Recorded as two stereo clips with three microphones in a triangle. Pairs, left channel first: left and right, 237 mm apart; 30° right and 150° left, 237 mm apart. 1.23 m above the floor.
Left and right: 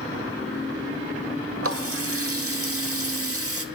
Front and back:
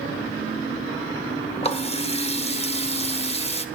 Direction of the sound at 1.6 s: 95° right.